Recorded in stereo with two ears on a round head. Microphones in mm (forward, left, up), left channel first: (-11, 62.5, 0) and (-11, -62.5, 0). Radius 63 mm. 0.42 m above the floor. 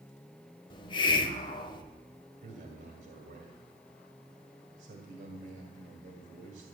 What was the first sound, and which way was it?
A hiss, 35° left (ahead or behind).